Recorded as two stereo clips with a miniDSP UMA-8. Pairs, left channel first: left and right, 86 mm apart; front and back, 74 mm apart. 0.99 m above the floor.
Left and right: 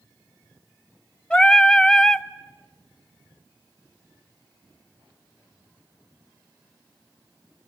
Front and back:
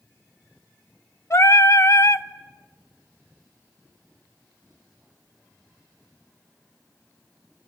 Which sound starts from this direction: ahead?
Singing, at 1.3 s.